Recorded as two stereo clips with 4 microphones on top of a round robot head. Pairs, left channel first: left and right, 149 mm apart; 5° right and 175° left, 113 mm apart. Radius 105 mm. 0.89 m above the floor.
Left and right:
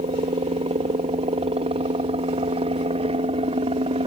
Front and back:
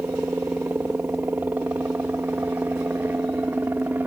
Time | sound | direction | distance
0.0 | a helicopter | 115° right | ?